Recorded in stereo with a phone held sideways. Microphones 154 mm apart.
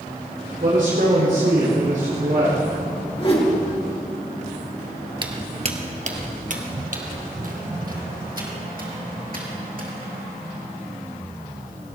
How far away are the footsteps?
About 1.2 m.